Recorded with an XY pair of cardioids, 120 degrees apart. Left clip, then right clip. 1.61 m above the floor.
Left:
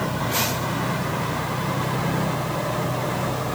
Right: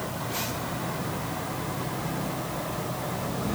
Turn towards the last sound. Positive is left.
No sound to turn to.